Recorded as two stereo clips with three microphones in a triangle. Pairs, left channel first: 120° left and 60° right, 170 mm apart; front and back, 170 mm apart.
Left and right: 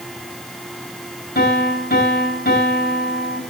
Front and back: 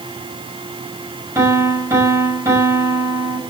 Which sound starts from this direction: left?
A piano, at 1.4 s.